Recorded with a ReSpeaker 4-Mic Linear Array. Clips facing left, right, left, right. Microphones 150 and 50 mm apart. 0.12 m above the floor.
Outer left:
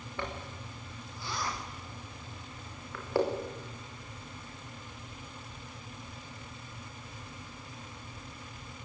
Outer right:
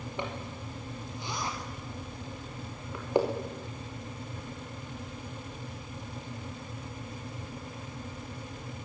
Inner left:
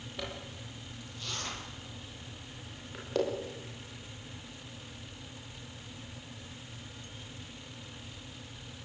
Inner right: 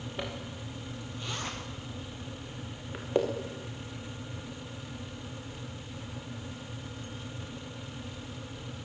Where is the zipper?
20° right (ahead or behind), 6 m.